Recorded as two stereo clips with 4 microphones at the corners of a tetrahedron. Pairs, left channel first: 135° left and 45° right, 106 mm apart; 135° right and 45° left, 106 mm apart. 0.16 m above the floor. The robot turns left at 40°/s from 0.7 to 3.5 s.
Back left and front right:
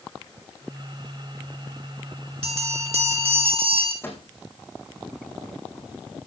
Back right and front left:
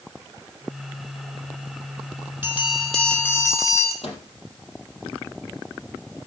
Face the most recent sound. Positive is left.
turn(degrees=-155)